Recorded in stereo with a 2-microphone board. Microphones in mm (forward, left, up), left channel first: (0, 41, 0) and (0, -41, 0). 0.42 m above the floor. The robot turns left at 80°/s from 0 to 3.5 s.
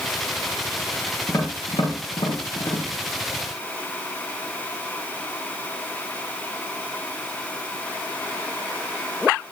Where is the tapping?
25° left (ahead or behind), 6.5 m; by 2.9 s 30° left (ahead or behind), 6.5 m.